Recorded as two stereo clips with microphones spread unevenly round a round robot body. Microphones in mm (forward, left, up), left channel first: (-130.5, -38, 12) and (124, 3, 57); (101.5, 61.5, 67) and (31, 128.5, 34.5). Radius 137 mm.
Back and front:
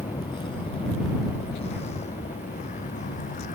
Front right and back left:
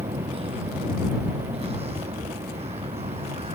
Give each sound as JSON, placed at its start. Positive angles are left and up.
{"t": 0.0, "sound": "a vehicle", "azimuth_deg": 115}